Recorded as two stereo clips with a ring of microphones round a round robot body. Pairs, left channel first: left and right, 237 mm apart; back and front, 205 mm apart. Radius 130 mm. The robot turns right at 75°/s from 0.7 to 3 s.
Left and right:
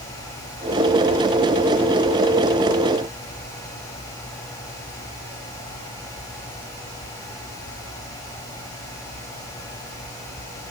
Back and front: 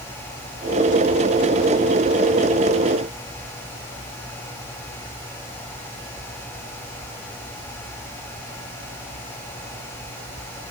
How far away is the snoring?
No snoring in this recording.